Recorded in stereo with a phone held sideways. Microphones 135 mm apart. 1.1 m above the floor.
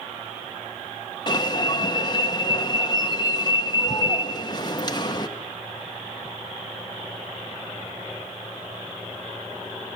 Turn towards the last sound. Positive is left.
turn(degrees=30)  # may be behind; listen again after turning